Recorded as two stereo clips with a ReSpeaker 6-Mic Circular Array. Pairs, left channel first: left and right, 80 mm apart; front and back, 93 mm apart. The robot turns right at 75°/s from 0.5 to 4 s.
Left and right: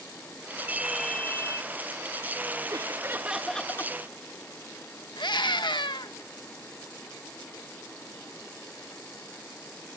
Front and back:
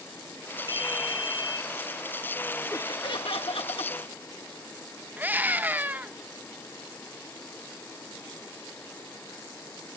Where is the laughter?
60° right, 1.6 m; by 3.9 s 35° left, 1.6 m.